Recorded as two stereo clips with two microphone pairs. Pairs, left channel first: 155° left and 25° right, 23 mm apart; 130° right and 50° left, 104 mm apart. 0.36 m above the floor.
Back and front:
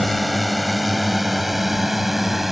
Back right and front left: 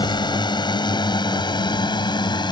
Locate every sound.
0.0 s a drone: 115° right; by 2.5 s 105° right